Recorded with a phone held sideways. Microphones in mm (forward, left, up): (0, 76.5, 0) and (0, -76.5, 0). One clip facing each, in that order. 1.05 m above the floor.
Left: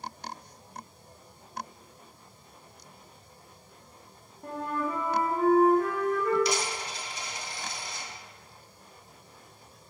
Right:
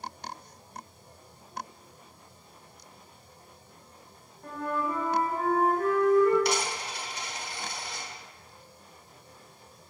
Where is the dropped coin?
60° right (ahead or behind), 0.9 m.